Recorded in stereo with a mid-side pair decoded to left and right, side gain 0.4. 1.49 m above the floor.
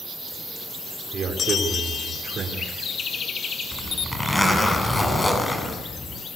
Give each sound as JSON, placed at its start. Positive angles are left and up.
{"t": 1.1, "sound": "a man speaking", "azimuth_deg": -60, "distance_m": 5.0}
{"t": 3.7, "sound": "a zipper", "azimuth_deg": 15, "distance_m": 8.0}